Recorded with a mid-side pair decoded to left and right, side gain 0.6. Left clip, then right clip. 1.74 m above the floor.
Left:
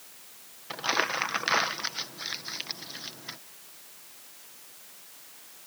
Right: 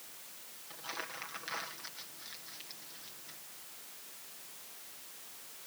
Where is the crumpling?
65° left.